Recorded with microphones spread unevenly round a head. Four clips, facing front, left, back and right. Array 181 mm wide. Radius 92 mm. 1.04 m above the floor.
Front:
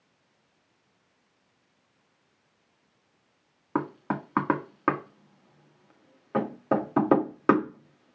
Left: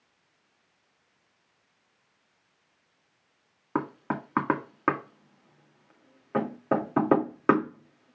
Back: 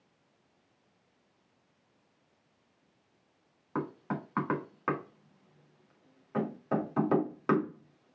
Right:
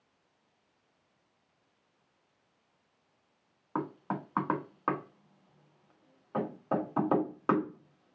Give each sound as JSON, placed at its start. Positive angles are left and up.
{"t": 3.8, "sound": "knocking", "azimuth_deg": 50, "distance_m": 1.8}